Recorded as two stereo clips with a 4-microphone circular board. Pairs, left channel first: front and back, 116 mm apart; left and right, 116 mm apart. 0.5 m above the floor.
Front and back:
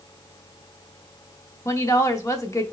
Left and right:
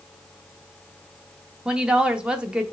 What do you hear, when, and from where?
1.6 s a woman speaking: 20° right, 0.7 m